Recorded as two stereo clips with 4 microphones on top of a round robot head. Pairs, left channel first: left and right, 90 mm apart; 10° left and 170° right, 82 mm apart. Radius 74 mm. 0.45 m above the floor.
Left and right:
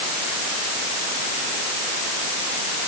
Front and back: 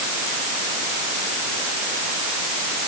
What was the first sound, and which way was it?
Only background noise.